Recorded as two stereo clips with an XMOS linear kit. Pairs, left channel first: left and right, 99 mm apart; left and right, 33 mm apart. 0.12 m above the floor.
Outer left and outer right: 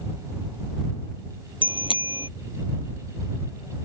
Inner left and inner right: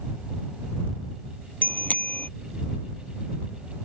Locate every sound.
1.6 s a bicycle bell: 60° left (ahead or behind)